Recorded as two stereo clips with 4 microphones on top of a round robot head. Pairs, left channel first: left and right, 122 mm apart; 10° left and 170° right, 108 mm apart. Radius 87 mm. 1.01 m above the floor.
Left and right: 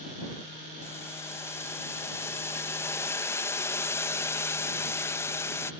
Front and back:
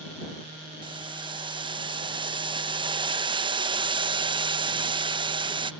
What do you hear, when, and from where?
0.8 s boiling: 160° left